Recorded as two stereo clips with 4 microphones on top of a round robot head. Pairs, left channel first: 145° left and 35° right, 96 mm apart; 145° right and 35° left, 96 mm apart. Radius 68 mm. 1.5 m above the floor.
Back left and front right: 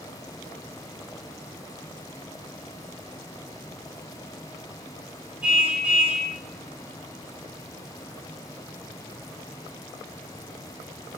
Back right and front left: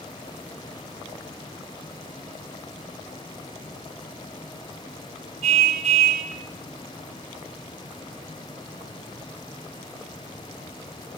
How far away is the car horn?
About 6.5 m.